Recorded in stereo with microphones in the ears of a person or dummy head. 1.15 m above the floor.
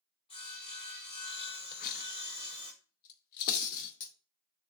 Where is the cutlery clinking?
50° left (ahead or behind), 0.8 m.